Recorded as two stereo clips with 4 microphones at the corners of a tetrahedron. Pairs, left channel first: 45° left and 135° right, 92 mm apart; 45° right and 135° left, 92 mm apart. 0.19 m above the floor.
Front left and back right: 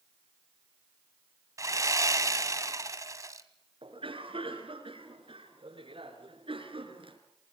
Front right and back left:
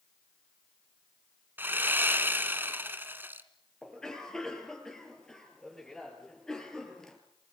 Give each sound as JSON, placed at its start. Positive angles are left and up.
{"t": 1.6, "sound": "sawing", "azimuth_deg": -170, "distance_m": 1.3}
{"t": 3.8, "sound": "a cough", "azimuth_deg": -130, "distance_m": 4.0}